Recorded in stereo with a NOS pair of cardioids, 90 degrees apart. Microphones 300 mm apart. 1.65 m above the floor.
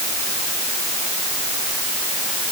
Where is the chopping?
I don't hear chopping.